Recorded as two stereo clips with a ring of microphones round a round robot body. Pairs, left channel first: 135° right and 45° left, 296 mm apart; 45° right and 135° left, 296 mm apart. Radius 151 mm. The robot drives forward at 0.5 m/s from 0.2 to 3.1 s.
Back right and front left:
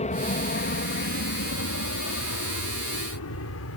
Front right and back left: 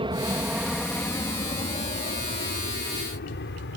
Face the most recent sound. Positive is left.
turn(degrees=-95)